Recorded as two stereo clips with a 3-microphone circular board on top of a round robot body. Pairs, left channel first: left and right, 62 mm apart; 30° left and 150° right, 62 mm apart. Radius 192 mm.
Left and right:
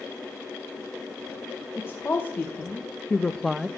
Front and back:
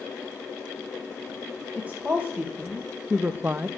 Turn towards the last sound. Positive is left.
turn(degrees=-155)